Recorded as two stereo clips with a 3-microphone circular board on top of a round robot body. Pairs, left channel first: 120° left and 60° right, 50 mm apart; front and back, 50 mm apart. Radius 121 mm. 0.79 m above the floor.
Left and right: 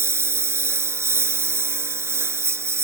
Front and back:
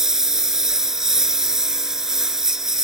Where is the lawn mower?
100° right.